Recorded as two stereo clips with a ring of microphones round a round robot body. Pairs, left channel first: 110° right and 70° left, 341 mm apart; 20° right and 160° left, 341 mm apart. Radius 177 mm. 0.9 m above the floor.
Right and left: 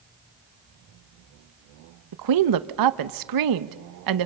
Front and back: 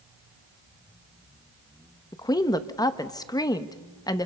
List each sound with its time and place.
2.1 s a woman speaking: 55° left, 1.0 m